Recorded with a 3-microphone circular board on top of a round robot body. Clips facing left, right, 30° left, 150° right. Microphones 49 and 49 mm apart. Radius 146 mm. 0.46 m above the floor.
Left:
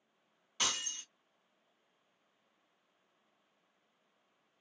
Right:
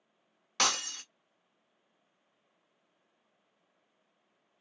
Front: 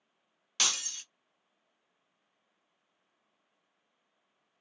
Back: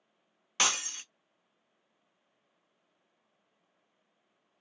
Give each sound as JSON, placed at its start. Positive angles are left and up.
{"t": 0.6, "sound": "breaking glass", "azimuth_deg": -90, "distance_m": 0.7}